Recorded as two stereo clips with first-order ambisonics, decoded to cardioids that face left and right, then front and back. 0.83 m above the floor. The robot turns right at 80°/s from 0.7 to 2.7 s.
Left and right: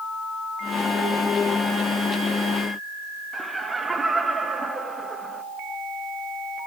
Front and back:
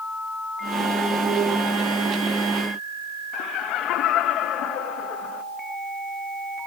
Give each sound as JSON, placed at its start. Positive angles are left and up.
{"t": 3.3, "sound": "laughter", "azimuth_deg": -15, "distance_m": 0.7}